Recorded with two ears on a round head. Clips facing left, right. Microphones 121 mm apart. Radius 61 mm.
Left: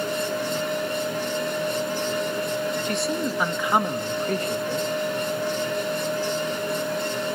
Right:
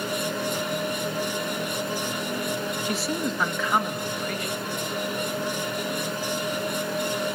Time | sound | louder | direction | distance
2.9 | a man speaking | left 2 dB | 5° right (ahead or behind) | 1.2 m